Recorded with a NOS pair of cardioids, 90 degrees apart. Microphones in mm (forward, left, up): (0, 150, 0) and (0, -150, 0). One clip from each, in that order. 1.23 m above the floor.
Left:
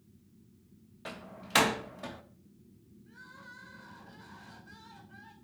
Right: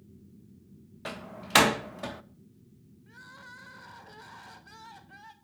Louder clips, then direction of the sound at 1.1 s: Right 5 dB; 30° right.